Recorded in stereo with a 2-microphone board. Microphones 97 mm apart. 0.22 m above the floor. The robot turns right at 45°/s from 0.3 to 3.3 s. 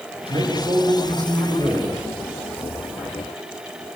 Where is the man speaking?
85° right, 9 m; by 1.9 s 15° right, 9 m.